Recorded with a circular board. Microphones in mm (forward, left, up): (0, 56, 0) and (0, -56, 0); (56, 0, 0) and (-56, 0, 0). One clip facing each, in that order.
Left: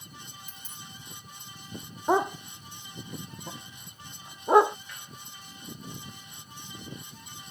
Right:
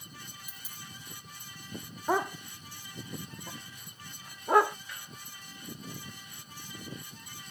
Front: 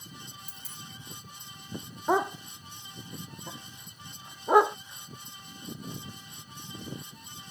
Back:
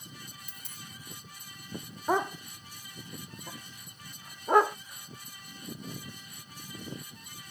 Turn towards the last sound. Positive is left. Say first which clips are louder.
# left 5 dB, front 2 dB
turn(degrees=65)